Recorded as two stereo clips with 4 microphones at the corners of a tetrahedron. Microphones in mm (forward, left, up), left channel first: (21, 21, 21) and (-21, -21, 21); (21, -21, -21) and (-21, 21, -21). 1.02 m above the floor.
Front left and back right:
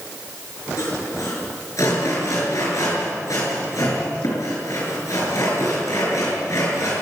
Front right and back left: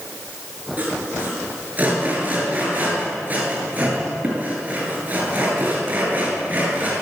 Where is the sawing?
75° left, 8 m.